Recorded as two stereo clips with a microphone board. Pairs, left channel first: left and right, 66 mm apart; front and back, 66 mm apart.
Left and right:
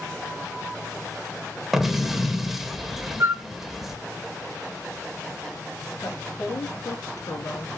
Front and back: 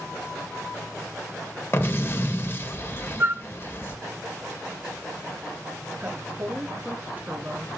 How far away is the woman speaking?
About 4 m.